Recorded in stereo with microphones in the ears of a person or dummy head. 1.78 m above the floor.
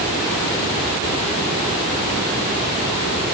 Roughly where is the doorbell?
I don't hear a doorbell.